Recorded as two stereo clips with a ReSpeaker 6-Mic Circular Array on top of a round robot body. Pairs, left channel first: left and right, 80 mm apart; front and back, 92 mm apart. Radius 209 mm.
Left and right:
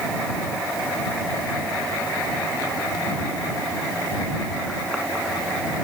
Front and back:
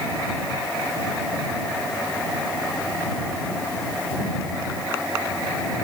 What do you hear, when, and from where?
Only background noise.